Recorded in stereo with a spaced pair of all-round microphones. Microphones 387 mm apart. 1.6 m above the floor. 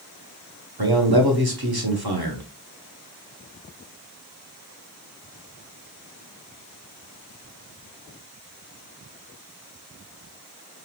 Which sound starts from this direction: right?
A man speaking, at 0.8 s.